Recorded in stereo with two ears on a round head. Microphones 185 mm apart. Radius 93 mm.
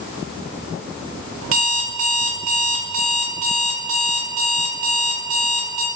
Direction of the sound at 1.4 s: 70° right (ahead or behind).